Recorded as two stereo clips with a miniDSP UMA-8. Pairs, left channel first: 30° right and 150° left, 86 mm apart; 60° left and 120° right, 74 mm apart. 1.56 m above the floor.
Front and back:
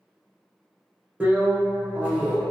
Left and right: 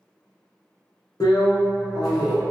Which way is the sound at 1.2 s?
80° left.